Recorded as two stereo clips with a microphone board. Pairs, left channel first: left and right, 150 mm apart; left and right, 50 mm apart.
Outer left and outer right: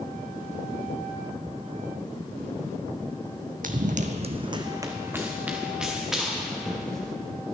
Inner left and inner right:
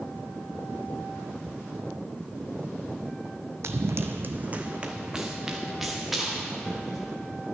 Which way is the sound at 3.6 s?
65° right (ahead or behind).